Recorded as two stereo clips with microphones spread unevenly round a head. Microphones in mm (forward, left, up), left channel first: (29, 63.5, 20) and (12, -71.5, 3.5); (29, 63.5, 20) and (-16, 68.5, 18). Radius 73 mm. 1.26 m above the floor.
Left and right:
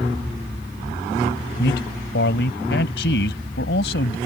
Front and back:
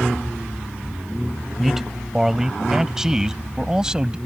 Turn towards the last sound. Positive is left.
turn(degrees=100)